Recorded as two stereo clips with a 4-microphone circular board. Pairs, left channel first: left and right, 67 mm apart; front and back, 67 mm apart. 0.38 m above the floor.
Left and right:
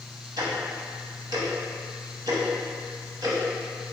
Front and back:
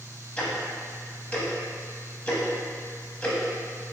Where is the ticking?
75° right, 0.8 m.